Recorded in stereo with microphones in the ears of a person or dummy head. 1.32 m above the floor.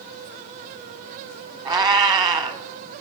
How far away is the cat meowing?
About 1.2 m.